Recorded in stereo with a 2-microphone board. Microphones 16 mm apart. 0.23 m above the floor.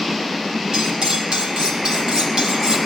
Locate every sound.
0.7 s cutlery clinking: 50° right (ahead or behind), 4.5 m